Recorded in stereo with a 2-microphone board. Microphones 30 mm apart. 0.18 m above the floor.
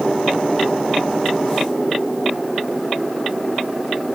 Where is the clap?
No clap in this recording.